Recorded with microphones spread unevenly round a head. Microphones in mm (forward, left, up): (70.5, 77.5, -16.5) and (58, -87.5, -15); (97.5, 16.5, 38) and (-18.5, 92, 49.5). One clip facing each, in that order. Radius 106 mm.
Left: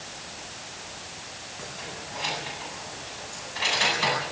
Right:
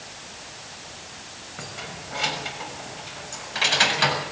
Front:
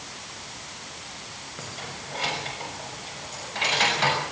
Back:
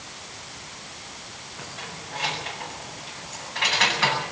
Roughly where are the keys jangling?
Right.